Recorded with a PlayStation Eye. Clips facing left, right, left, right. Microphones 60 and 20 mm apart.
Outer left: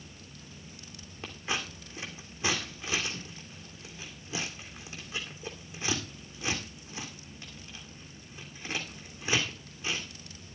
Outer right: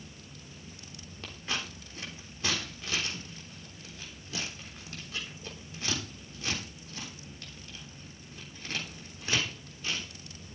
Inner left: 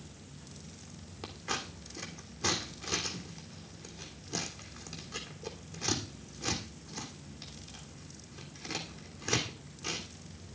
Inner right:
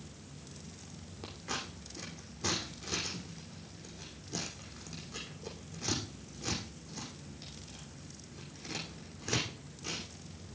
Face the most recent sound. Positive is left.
turn(degrees=15)  # may be behind; listen again after turning